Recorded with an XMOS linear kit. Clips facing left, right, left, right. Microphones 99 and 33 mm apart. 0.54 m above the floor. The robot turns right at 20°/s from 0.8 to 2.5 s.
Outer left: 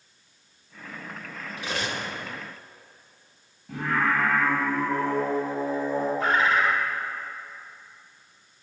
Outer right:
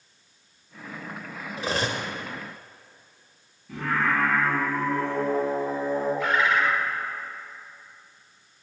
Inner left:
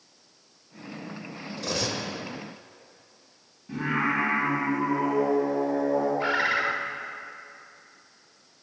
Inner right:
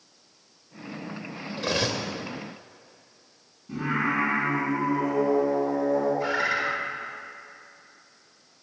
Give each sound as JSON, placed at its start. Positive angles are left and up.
{"t": 1.6, "sound": "cutlery clinking", "side_deg": -30, "distance_m": 0.7}
{"t": 3.7, "sound": "singing", "side_deg": 70, "distance_m": 3.0}
{"t": 6.2, "sound": "a bird", "side_deg": 35, "distance_m": 0.8}